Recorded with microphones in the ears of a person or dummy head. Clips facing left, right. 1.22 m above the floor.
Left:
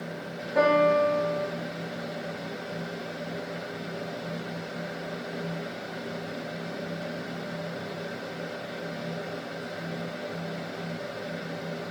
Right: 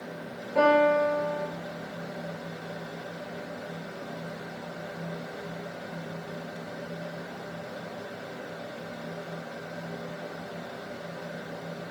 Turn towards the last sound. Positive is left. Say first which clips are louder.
# even
turn(degrees=15)  # may be behind; listen again after turning